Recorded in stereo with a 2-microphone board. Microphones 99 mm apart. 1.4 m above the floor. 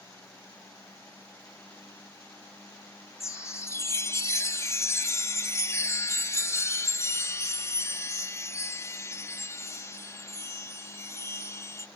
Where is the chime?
30° left (ahead or behind).